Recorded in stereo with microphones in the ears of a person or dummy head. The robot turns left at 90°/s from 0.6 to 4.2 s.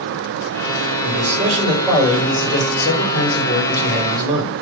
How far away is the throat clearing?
No throat clearing in this recording.